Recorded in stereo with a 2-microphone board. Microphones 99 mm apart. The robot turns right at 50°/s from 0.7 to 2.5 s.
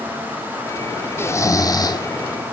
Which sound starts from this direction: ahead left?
Snoring, at 1.2 s.